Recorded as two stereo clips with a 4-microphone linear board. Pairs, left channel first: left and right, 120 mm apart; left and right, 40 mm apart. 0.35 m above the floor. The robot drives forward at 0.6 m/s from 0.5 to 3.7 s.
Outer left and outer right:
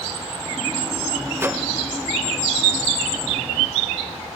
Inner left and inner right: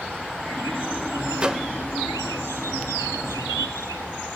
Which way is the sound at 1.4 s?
20° right (ahead or behind).